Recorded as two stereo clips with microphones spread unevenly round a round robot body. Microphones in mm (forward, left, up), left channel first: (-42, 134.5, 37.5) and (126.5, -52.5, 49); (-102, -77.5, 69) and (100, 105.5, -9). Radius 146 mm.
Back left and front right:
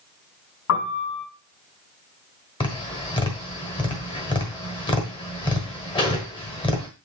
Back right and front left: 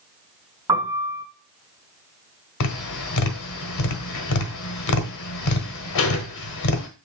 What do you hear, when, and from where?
0.7 s a piano: 120° left, 3.5 m
2.6 s tapping: 160° right, 1.2 m